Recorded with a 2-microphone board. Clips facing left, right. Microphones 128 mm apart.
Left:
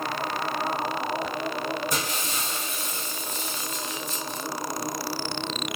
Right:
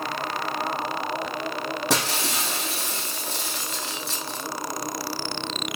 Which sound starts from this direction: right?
Breaking glass, at 1.9 s.